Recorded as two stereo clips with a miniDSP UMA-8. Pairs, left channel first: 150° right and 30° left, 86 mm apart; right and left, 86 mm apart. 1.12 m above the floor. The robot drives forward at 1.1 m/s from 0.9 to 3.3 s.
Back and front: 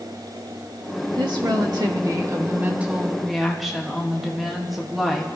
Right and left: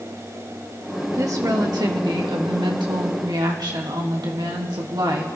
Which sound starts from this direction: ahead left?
A woman speaking, at 1.1 s.